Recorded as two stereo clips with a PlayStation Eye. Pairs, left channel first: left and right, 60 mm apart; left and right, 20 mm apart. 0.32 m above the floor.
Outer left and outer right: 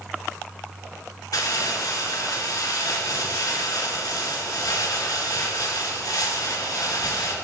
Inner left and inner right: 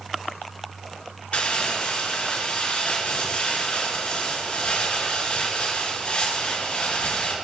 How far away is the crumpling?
About 4 m.